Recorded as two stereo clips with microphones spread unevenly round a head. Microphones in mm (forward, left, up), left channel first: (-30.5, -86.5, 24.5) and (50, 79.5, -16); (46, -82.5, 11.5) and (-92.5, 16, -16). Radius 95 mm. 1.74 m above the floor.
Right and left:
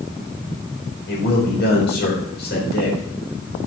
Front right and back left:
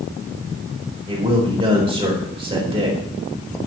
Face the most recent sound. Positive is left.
turn(degrees=-155)